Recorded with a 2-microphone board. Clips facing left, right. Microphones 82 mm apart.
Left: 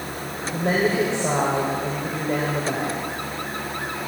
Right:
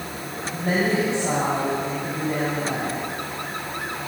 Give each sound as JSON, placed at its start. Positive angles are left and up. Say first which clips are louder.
{"t": 0.5, "sound": "a woman speaking", "louder": "left 1 dB", "side_deg": 75, "distance_m": 4.0}